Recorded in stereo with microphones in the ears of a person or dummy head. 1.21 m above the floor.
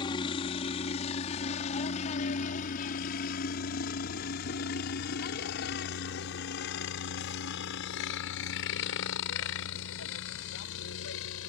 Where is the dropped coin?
No dropped coin in this recording.